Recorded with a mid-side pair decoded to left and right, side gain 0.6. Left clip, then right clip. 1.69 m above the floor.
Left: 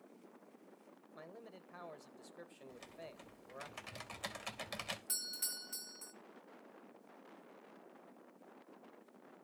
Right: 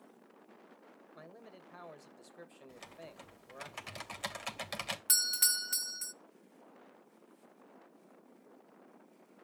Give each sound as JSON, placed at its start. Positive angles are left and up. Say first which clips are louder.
{"t": 1.1, "sound": "a man speaking", "louder": "even", "azimuth_deg": -5, "distance_m": 2.0}
{"t": 2.7, "sound": "typing on a keyboard", "louder": "right 1 dB", "azimuth_deg": -25, "distance_m": 2.5}
{"t": 5.1, "sound": "a doorbell", "louder": "right 12 dB", "azimuth_deg": -55, "distance_m": 0.9}